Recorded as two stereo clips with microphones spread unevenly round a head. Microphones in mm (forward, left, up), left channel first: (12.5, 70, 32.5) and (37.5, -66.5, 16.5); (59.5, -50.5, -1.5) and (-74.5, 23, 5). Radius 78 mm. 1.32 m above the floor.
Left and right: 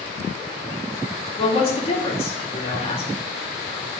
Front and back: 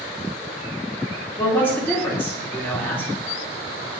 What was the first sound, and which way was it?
A man speaking, 50° left.